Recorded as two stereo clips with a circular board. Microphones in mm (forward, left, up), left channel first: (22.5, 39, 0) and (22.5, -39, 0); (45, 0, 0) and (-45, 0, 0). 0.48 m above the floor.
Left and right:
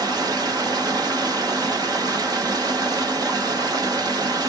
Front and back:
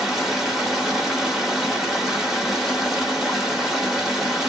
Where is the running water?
95° right, 1.1 m.